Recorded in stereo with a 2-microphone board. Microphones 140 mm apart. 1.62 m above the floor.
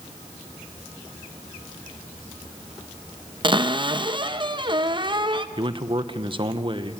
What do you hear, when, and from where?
3.4 s a cupboard door: 35° right (ahead or behind), 1.0 m
5.6 s a man speaking: 35° right (ahead or behind), 1.2 m